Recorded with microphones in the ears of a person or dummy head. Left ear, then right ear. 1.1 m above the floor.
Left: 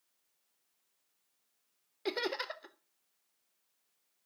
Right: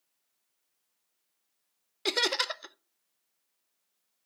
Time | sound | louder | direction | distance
2.0 | laughter | right 8 dB | 20° right (ahead or behind) | 0.5 m